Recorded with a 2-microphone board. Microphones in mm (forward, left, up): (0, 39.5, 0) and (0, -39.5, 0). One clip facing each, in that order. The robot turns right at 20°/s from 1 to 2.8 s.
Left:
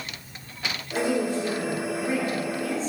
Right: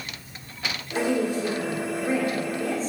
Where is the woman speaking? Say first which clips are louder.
Right 1 dB; 170° right, 3 m; by 2.9 s 135° right, 3 m.